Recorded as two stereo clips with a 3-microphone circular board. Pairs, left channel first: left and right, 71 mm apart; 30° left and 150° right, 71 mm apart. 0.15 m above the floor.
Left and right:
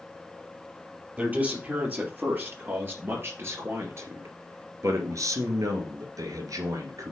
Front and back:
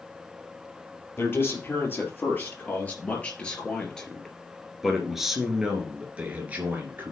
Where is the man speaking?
25° right, 3.5 m; by 7.1 s 95° right, 2.5 m.